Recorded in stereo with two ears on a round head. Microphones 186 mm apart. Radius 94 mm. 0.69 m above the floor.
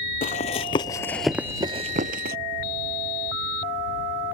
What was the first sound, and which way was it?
Running footsteps, 40° left (ahead or behind).